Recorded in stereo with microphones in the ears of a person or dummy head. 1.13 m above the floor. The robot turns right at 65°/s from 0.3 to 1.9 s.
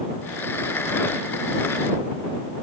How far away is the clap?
No clap in this recording.